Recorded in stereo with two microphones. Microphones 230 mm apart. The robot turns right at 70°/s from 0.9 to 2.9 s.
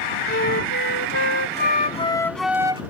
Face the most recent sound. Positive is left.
turn(degrees=-145)